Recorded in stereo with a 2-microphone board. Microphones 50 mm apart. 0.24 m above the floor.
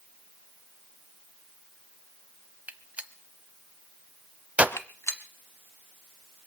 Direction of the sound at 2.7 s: 25° right (ahead or behind).